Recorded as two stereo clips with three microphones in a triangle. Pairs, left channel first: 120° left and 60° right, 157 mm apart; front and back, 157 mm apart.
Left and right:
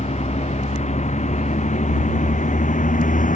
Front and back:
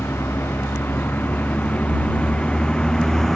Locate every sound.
0.0 s a vehicle: 75° left; by 3.4 s 90° left